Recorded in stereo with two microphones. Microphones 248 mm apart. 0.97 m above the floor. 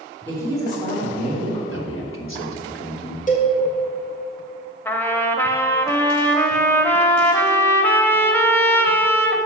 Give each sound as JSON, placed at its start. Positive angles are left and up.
{"t": 0.2, "sound": "a woman speaking", "side_deg": 5, "distance_m": 3.0}
{"t": 1.7, "sound": "a man speaking", "side_deg": 55, "distance_m": 1.6}
{"t": 3.3, "sound": "a cowbell", "side_deg": 30, "distance_m": 1.4}
{"t": 4.8, "sound": "a trumpet", "side_deg": 10, "distance_m": 0.7}